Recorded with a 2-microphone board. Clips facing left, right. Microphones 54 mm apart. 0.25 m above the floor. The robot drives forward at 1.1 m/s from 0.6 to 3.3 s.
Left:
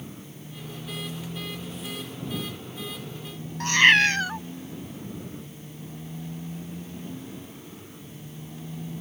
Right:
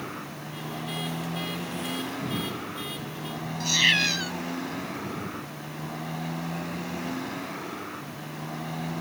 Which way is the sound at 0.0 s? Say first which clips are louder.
Right 6 dB; 85° right.